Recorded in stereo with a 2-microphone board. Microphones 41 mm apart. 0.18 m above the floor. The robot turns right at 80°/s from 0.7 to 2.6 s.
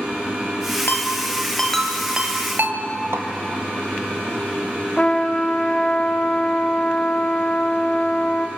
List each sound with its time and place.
0.9 s a ringtone: 65° left (ahead or behind), 1.9 m; by 2.8 s 55° right (ahead or behind), 1.9 m
3.1 s a snare drum: 75° right (ahead or behind), 2.5 m
5.0 s a trumpet: 25° left (ahead or behind), 2.5 m